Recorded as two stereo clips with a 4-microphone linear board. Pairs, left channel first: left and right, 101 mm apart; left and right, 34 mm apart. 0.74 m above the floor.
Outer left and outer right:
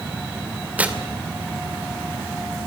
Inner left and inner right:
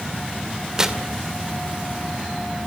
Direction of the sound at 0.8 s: 15° right (ahead or behind).